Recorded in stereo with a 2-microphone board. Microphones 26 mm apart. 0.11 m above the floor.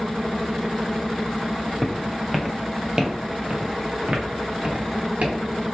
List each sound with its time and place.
1.8 s footsteps: 15° left (ahead or behind), 0.9 m; by 5.4 s 65° right (ahead or behind), 2.5 m